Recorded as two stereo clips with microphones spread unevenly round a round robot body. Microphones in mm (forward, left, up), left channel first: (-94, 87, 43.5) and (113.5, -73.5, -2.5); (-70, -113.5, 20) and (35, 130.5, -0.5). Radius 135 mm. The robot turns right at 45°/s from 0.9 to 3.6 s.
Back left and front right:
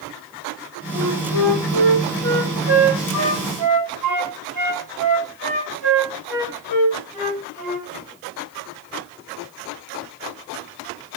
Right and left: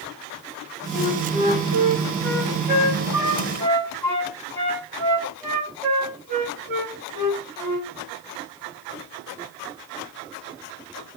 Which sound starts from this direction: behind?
A flute, at 0.9 s.